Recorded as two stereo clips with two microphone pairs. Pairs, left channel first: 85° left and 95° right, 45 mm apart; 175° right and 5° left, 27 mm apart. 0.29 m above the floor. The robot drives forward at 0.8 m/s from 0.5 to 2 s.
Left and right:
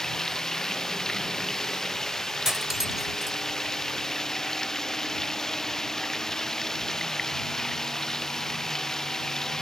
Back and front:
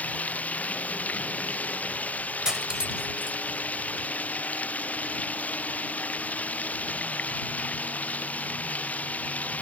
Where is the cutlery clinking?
25° right.